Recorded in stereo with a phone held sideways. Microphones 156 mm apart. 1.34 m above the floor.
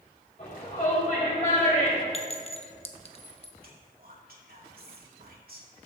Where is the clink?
40° left (ahead or behind), 0.8 m.